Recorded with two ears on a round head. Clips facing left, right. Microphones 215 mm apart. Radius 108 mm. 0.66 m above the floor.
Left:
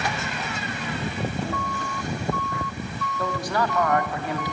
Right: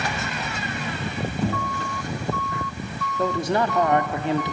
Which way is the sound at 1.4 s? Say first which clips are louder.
Right 4 dB; 85° right.